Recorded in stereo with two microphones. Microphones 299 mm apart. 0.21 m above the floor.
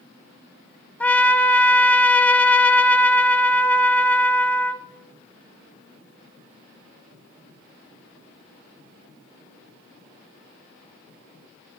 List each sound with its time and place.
1.0 s a trumpet: 5° left (ahead or behind), 0.6 m